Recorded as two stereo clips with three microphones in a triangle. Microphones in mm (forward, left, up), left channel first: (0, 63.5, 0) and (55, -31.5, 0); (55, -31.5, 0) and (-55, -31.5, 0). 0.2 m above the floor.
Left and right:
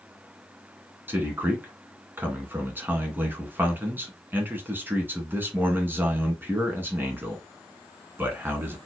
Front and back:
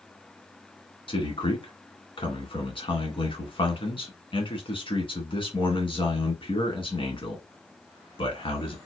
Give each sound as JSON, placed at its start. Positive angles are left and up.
{"t": 1.1, "sound": "a man speaking", "azimuth_deg": 10, "distance_m": 1.8}